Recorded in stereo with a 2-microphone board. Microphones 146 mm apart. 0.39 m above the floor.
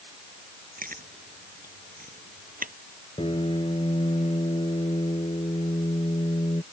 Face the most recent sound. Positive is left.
turn(degrees=40)  # may be behind; listen again after turning